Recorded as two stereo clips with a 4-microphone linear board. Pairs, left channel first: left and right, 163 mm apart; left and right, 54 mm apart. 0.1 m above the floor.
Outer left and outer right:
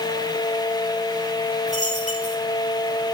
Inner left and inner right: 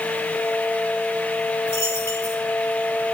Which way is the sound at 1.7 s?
50° left (ahead or behind).